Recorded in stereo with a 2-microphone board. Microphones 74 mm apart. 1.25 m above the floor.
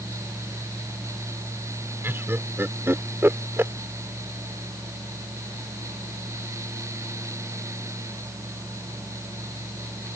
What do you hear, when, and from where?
2.0 s laughter: 30° right (ahead or behind)